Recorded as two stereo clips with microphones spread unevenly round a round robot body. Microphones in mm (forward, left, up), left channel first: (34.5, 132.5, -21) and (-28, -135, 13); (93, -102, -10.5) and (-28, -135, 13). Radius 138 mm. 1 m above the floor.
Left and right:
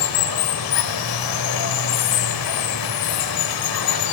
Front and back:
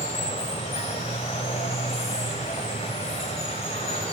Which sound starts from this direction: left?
Running water, at 0.0 s.